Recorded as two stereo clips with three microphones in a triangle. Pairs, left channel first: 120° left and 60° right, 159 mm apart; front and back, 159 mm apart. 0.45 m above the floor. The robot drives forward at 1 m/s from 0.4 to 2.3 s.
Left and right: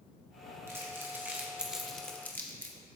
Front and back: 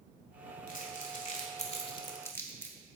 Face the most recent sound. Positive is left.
turn(degrees=55)